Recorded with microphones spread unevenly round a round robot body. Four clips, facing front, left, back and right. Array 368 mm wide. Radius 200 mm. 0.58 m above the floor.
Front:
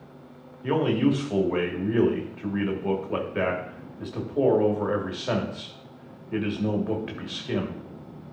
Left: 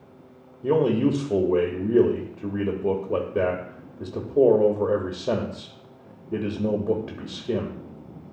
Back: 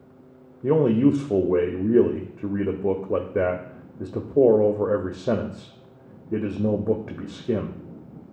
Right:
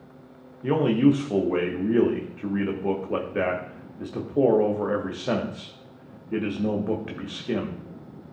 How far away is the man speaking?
About 1.0 m.